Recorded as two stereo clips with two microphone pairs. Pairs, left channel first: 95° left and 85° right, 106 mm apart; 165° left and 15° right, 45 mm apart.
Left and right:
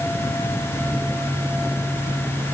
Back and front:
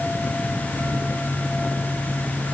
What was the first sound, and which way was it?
Only background noise.